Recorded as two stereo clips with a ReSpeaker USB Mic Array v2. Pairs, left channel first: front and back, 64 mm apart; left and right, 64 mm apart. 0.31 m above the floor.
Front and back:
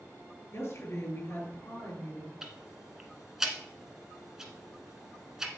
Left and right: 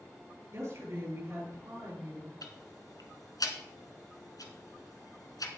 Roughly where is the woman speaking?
Ahead right.